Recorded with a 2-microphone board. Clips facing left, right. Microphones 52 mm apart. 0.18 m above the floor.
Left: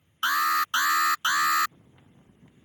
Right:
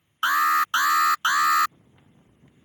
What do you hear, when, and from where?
0.2 s an alarm: 20° right (ahead or behind)